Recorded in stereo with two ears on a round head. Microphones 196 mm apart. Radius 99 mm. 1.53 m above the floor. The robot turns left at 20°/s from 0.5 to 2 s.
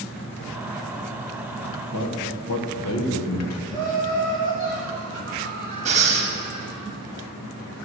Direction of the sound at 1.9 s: 80° left.